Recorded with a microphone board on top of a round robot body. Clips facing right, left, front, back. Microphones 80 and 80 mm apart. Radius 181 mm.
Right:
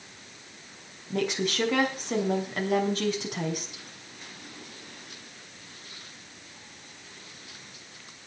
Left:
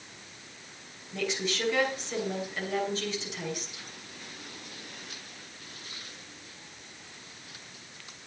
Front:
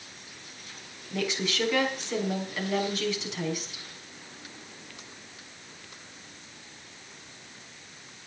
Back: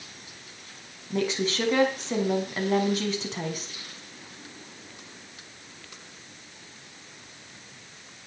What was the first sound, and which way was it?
A woman speaking, 125° right.